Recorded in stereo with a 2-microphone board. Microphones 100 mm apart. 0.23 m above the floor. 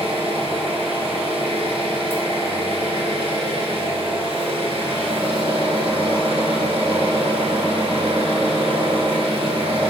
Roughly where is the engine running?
Right.